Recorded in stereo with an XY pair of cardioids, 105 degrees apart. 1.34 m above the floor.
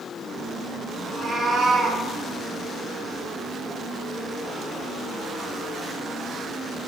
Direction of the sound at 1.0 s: 30° right.